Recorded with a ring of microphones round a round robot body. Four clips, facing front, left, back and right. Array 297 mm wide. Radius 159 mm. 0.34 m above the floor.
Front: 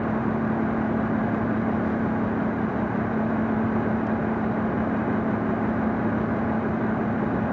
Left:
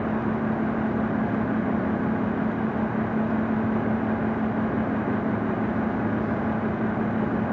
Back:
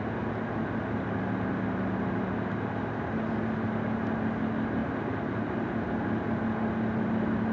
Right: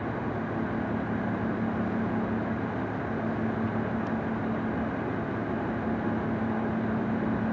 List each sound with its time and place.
Only background noise.